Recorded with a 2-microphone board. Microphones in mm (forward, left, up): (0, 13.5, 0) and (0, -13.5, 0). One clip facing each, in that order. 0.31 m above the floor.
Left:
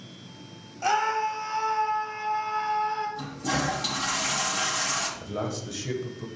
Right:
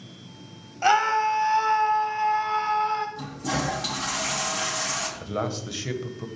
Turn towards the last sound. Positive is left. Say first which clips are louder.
# right 3 dB
turn(degrees=-35)  # may be behind; listen again after turning